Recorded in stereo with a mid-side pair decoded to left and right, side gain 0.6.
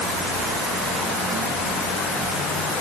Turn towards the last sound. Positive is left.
No sound to turn to.